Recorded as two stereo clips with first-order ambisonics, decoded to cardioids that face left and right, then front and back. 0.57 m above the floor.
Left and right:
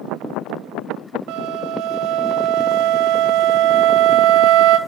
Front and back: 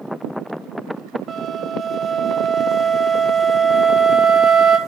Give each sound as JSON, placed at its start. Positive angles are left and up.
{"t": 1.3, "sound": "a flute", "azimuth_deg": -115, "distance_m": 1.6}